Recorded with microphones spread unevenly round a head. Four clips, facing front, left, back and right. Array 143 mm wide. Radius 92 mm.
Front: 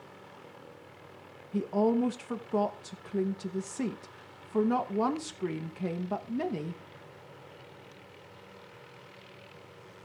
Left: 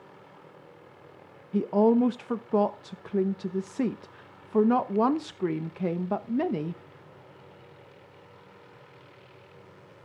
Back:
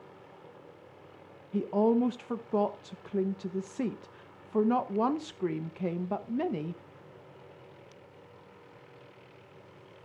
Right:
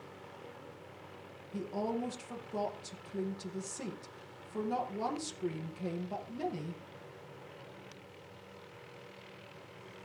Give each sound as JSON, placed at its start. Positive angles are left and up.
{"t": 1.5, "sound": "a woman speaking", "azimuth_deg": 90, "distance_m": 0.8}